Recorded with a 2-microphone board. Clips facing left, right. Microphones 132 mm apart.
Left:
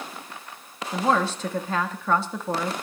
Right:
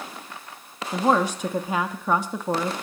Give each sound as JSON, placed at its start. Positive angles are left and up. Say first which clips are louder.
{"t": 0.9, "sound": "a woman speaking", "louder": "right 2 dB", "side_deg": -15, "distance_m": 0.8}